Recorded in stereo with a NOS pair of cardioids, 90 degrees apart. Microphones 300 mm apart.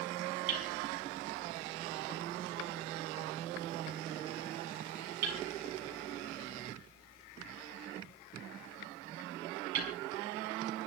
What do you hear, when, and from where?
0.5 s hammering: 65° right, 5.5 m